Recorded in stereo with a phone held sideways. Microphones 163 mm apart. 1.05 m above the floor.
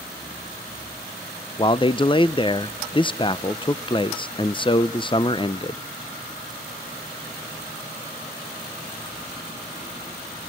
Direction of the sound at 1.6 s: 30° left (ahead or behind).